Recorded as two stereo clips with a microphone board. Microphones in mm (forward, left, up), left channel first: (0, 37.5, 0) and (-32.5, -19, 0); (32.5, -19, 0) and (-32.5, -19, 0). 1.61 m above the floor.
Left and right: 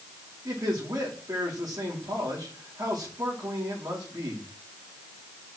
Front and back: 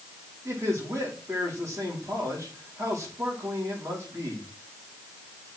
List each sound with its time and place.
0.5 s a man speaking: 140° right, 3.5 m